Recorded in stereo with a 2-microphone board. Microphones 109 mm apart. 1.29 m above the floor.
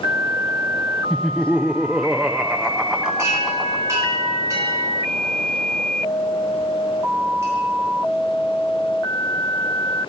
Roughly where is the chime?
Right.